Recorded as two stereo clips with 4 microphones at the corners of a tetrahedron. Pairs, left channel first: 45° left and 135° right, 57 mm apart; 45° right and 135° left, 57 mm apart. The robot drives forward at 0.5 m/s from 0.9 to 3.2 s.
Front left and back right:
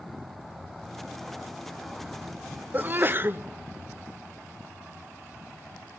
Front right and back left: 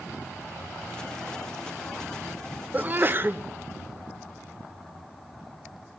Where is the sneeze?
175° left, 0.6 m; by 3.4 s straight behind, 0.7 m.